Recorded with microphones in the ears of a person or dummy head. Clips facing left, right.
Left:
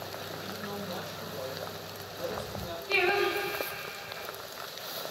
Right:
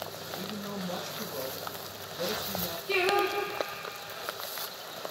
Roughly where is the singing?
Right.